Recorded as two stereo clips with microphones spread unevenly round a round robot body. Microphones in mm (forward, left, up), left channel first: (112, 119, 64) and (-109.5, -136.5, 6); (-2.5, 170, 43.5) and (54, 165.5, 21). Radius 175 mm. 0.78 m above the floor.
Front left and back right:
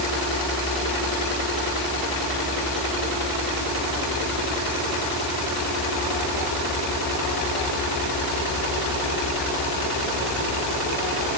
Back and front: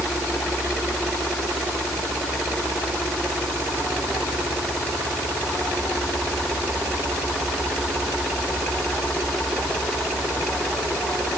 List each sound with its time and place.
Only background noise.